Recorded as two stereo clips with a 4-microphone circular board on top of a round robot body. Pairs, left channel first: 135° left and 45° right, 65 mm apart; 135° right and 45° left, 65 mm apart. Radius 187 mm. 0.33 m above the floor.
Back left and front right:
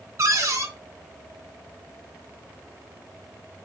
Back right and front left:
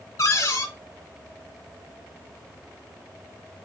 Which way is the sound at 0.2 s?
95° right.